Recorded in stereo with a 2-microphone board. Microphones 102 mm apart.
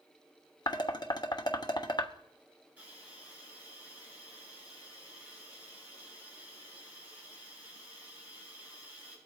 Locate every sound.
0.7 s dishes clattering: 45° left (ahead or behind), 1.0 m
2.8 s a hiss: 15° right (ahead or behind), 8.5 m